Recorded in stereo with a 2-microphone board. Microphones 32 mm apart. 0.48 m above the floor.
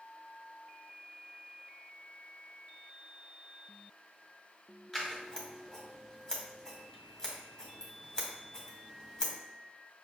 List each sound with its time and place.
4.9 s scissors: 20° left (ahead or behind), 1.2 m